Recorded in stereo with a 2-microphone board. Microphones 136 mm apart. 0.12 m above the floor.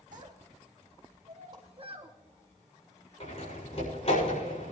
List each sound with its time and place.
0.1 s a child speaking: 65° right (ahead or behind), 2.5 m; by 2.1 s 35° right (ahead or behind), 1.4 m
1.5 s a whoosh: 35° right (ahead or behind), 4.5 m
3.2 s a door slam: 45° left (ahead or behind), 7.5 m